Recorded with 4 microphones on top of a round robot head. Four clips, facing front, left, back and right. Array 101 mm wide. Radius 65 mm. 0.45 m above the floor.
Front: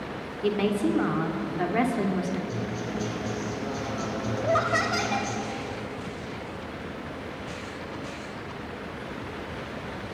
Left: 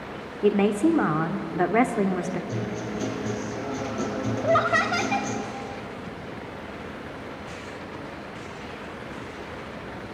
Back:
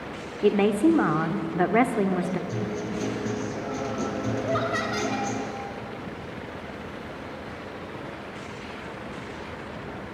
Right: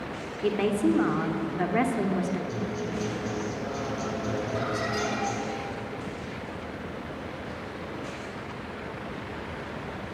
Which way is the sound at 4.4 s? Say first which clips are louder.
Left 8 dB, front 5 dB; 75° left.